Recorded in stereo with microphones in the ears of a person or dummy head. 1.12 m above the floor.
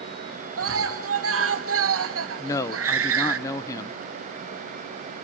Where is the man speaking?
15° left (ahead or behind), 0.7 m.